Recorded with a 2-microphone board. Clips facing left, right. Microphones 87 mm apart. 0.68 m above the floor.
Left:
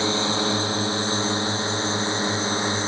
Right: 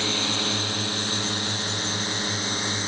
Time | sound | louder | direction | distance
0.0 | a drone | left 5 dB | 25° left (ahead or behind) | ?